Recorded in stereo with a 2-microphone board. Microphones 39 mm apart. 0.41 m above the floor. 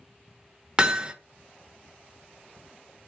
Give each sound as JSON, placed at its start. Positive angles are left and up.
{"t": 0.8, "sound": "hammering", "side_deg": -20, "distance_m": 0.6}